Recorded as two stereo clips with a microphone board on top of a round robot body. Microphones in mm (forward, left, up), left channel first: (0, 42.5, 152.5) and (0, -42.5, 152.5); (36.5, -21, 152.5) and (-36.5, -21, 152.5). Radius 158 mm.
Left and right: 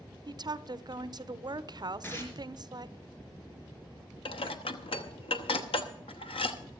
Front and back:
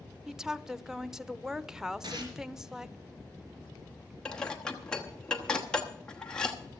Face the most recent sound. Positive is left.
turn(degrees=80)